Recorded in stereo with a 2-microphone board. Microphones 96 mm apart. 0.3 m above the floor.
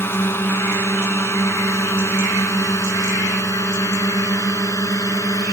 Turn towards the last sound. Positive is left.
turn(degrees=35)  # may be behind; listen again after turning